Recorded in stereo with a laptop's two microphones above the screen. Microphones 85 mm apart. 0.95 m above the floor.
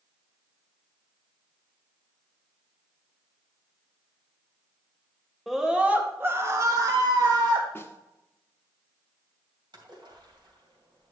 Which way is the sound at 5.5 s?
5° right (ahead or behind).